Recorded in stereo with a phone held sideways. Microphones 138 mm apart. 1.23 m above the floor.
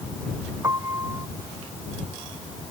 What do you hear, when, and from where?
0.6 s a piano: 25° right (ahead or behind)